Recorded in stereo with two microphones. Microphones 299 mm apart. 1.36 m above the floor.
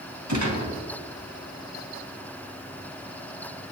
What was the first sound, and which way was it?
A gunshot, 70° right (ahead or behind).